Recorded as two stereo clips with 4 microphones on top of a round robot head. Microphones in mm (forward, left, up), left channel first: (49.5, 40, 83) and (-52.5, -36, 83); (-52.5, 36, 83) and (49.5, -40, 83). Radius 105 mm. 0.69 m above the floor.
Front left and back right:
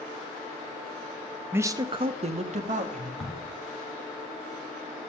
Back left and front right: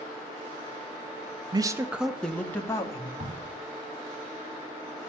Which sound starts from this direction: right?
A man speaking, at 1.5 s.